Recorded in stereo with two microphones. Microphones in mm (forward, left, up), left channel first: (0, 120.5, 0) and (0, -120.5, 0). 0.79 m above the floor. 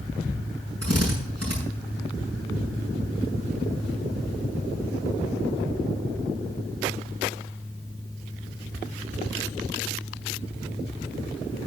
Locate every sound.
0.8 s a drill: 80° right, 6.5 m